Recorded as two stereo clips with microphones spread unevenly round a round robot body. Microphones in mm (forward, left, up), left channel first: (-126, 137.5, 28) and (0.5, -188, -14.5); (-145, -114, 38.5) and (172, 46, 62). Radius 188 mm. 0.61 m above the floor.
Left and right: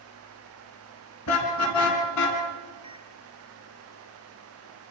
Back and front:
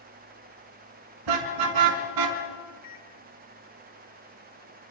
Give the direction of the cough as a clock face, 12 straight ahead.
I don't hear a cough.